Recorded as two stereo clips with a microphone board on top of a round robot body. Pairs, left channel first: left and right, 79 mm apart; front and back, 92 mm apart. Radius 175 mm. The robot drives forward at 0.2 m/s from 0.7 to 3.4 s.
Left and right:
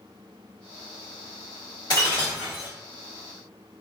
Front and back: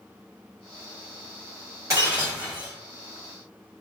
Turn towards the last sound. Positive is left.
turn(degrees=135)